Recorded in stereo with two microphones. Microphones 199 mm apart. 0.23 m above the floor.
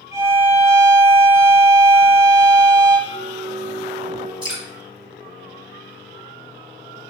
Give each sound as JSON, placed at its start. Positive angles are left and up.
{"t": 0.1, "sound": "a violin", "side_deg": -15, "distance_m": 1.6}
{"t": 3.1, "sound": "a flute", "side_deg": 5, "distance_m": 1.6}
{"t": 4.4, "sound": "dripping", "side_deg": -25, "distance_m": 2.0}